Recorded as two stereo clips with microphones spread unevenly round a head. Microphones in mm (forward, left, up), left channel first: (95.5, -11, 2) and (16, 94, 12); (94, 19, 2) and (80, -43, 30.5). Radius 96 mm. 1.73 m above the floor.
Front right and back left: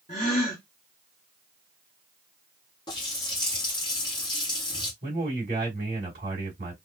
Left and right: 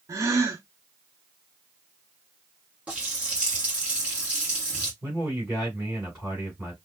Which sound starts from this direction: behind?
A man speaking, at 5.0 s.